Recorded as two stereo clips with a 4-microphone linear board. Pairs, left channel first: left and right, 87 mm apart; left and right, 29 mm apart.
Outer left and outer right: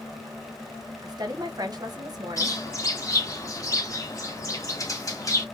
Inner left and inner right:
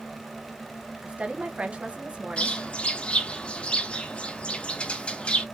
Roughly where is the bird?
Left.